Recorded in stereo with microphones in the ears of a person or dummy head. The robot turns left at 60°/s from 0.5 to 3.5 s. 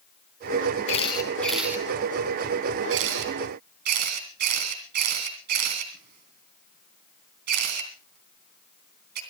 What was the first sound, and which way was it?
A camera shutter, 35° left (ahead or behind).